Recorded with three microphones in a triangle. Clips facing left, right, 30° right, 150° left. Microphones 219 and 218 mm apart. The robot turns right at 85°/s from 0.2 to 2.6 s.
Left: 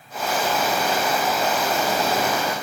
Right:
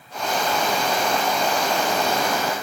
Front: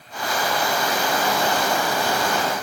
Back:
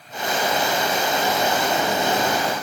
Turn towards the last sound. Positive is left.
No sound to turn to.